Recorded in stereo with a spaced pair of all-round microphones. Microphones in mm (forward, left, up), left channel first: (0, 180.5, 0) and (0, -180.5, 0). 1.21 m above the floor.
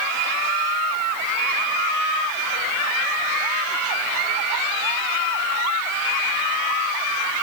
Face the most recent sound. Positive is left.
No sound to turn to.